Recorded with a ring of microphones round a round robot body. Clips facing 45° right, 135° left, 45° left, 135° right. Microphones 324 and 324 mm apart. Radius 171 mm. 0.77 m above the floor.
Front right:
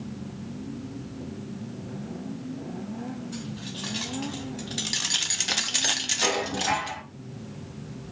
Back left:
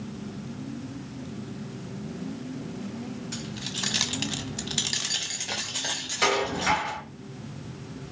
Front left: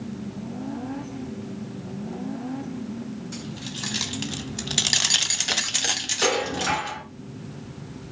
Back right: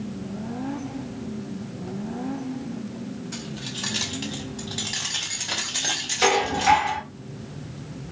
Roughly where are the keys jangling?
Behind left.